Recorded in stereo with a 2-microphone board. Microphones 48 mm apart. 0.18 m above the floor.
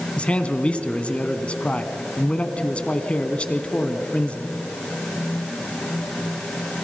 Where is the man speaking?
25° left (ahead or behind), 1.5 m.